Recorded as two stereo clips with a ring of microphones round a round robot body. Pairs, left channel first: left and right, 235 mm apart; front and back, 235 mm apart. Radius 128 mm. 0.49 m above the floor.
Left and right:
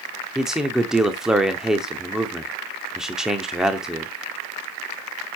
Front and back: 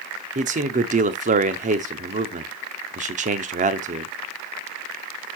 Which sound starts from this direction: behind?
A man speaking, at 0.3 s.